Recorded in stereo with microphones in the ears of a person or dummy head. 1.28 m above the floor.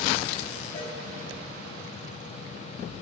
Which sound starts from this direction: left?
A cowbell, at 0.7 s.